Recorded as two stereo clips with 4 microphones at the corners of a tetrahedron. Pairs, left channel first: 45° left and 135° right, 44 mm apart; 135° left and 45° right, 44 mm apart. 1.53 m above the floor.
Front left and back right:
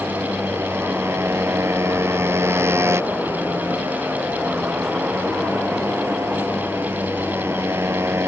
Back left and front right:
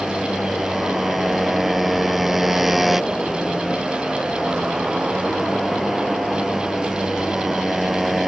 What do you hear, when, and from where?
0.0 s a motorcycle: 130° right